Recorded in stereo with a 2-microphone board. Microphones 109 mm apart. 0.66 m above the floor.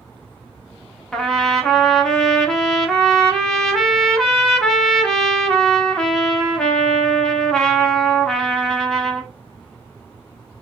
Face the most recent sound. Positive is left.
turn(degrees=5)  # may be behind; listen again after turning